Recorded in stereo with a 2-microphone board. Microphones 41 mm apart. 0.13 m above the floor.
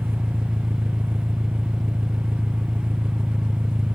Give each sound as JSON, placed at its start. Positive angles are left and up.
{"t": 0.0, "sound": "an engine running", "side_deg": -65}